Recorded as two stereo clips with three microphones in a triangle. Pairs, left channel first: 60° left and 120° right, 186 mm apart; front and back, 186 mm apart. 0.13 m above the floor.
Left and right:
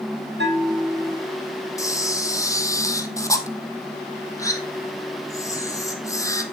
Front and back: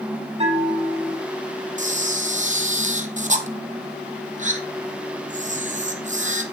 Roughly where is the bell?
Behind right.